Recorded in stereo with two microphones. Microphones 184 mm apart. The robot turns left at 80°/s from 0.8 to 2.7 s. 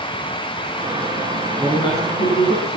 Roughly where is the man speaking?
Behind.